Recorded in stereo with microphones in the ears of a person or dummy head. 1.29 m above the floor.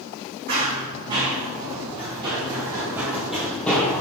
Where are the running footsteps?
35° right (ahead or behind), 3 m; by 4.0 s 15° left (ahead or behind), 1.9 m.